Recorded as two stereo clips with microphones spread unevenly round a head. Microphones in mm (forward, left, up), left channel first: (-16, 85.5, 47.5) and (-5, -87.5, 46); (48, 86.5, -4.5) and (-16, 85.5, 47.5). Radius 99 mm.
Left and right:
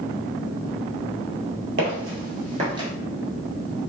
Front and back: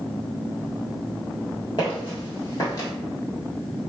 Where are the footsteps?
90° right, 1.6 m.